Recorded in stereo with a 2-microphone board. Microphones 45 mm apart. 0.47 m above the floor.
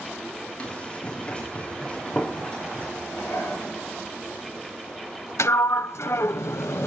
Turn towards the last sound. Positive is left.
turn(degrees=70)  # may be behind; listen again after turning